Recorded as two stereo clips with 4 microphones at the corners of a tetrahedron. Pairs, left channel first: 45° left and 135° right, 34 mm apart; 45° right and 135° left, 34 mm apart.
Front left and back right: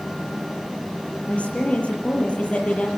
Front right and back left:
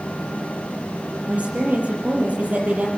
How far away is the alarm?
I don't hear an alarm.